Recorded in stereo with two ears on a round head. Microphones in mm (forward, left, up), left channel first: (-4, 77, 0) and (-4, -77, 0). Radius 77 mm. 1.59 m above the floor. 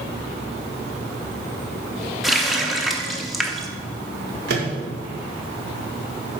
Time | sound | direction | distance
2.2 | a running tap | centre (ahead or behind) | 0.8 m
4.5 | a microwave | 65° right (ahead or behind) | 1.9 m